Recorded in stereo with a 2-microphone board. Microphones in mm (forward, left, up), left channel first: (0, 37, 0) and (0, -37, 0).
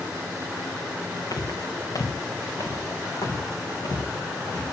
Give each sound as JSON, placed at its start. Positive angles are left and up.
{"t": 1.3, "sound": "footsteps", "side_deg": 55, "distance_m": 2.5}